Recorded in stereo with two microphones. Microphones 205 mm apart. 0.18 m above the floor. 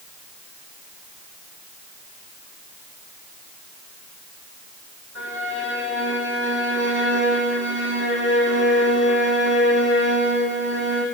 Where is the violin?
70° right (ahead or behind), 6.5 m.